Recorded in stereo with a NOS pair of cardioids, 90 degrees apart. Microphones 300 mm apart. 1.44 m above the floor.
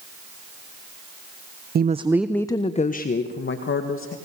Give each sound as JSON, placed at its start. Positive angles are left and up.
{"t": 1.8, "sound": "a woman speaking", "azimuth_deg": -35, "distance_m": 0.9}